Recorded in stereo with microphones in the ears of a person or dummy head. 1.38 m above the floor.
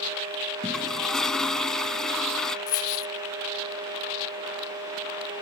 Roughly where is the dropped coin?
Centre.